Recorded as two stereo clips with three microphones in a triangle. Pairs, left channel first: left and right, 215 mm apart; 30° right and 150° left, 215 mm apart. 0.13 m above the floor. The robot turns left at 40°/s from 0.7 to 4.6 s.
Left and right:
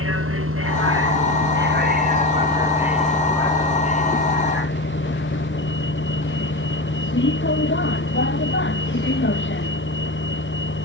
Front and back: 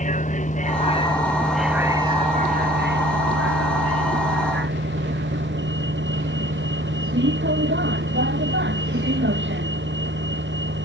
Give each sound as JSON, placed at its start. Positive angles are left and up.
{"t": 0.0, "sound": "a vehicle", "azimuth_deg": -85}